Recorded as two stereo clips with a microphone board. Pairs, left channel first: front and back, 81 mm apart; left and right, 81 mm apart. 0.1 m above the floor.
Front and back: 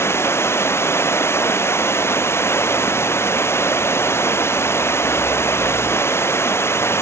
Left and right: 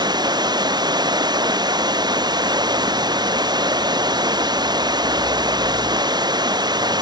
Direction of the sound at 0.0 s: 60° right.